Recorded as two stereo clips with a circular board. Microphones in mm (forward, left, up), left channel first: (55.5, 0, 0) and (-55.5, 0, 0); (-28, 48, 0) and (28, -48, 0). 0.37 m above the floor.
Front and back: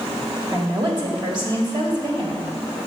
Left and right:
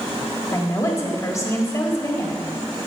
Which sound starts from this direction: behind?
A woman speaking, at 0.5 s.